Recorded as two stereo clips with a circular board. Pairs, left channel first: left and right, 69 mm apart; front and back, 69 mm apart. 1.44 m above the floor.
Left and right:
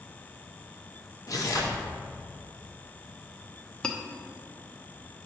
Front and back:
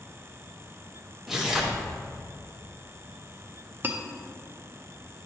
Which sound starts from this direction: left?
Tearing paper, at 1.3 s.